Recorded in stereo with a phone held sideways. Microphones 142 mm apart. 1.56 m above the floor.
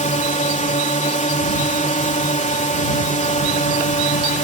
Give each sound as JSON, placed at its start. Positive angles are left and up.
{"t": 0.0, "sound": "a drone", "side_deg": 60}